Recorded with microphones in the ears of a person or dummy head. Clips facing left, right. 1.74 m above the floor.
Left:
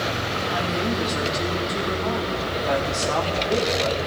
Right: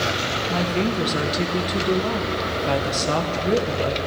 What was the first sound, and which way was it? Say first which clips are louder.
A woman speaking: right 3 dB; 45° right (ahead or behind).